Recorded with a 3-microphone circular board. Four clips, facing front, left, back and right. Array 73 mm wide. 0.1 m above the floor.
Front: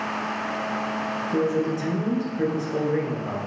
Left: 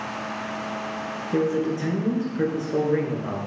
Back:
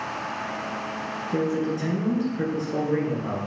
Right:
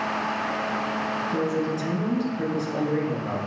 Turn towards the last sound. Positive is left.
turn(degrees=95)